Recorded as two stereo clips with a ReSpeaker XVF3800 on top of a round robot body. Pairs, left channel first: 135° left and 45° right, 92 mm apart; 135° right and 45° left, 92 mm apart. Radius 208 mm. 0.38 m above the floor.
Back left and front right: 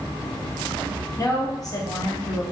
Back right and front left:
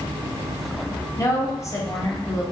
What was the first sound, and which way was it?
A woman speaking, 175° left.